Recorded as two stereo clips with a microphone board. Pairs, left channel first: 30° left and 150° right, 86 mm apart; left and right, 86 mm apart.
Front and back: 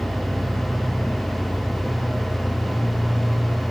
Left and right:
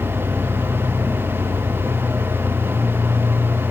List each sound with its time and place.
0.0 s an engine running: 20° left, 7.5 m